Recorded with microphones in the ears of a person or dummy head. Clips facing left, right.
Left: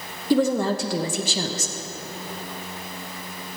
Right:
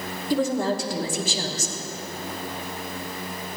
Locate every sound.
0.3 s a woman speaking: 60° left (ahead or behind), 1.2 m